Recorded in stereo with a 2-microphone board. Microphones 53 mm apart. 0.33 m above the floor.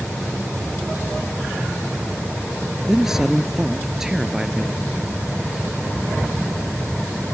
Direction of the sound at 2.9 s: 5° right (ahead or behind).